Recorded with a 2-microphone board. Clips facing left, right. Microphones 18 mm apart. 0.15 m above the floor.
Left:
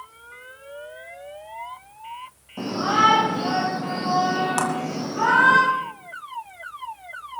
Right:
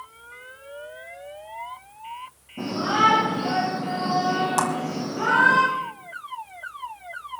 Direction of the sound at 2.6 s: 75° left (ahead or behind).